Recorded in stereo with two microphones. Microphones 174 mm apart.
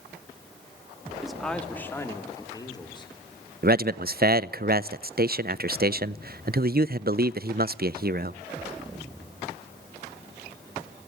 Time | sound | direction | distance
1.2 | a man speaking | centre (ahead or behind) | 2 m
3.6 | a man speaking | 60° right (ahead or behind) | 0.5 m